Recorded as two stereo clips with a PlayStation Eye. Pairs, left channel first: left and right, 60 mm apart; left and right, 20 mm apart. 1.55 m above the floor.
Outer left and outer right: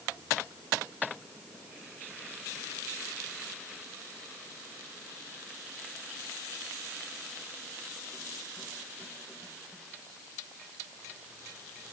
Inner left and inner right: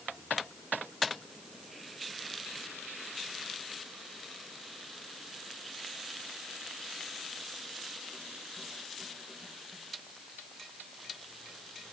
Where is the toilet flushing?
No toilet flushing in this recording.